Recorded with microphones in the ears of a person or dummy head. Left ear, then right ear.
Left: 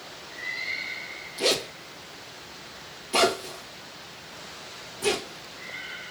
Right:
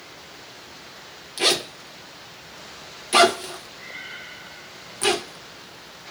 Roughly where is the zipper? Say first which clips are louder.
Right 4 dB; right.